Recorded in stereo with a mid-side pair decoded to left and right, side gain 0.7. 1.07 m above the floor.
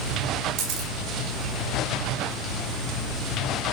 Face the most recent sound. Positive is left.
turn(degrees=-70)